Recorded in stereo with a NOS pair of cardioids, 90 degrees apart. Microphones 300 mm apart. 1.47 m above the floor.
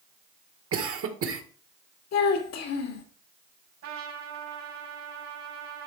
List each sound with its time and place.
0.7 s a cough: 50° right, 1.9 m
2.1 s a child speaking: 70° left, 1.9 m
3.8 s a trumpet: 65° right, 4 m